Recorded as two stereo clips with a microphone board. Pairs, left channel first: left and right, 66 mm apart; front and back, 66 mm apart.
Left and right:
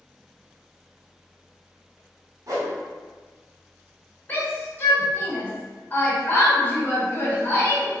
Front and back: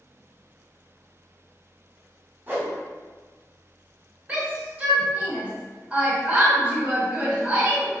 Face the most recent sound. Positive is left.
turn(degrees=125)